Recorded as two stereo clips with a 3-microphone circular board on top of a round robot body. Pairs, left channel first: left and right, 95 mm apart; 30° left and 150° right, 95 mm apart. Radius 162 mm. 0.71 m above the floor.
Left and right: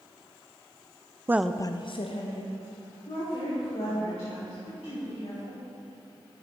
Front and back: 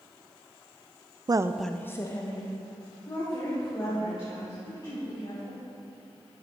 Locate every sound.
1.3 s a woman speaking: 145° right, 0.5 m; by 5.6 s 75° left, 5 m